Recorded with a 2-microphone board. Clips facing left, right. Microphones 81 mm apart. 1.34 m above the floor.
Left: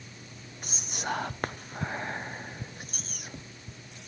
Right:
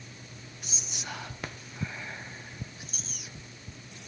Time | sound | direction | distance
0.6 | whispering | 55° left (ahead or behind) | 0.5 m